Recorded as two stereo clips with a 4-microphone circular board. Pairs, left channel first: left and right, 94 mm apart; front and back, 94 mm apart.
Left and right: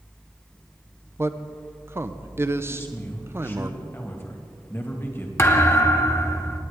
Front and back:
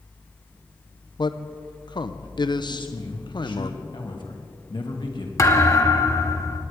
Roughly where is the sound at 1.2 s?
Ahead right.